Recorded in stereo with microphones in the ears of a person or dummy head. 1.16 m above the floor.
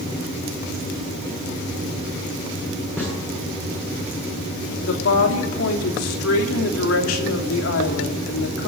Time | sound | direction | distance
3.0 | a snare drum | 5° left (ahead or behind) | 7 m
4.8 | a woman speaking | 80° left | 3 m